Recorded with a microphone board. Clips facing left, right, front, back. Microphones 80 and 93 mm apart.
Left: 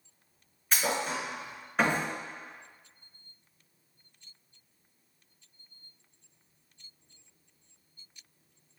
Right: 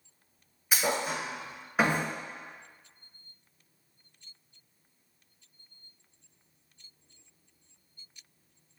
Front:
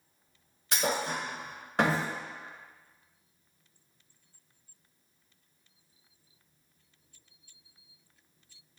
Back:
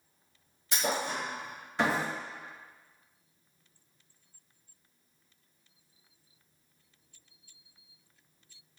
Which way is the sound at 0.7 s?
10° right.